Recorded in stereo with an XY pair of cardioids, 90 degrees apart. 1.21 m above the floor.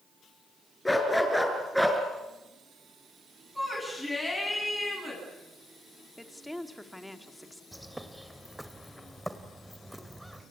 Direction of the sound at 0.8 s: 10° left.